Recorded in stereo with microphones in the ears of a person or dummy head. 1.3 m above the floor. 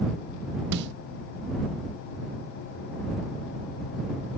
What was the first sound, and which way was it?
A snare drum, 60° right (ahead or behind).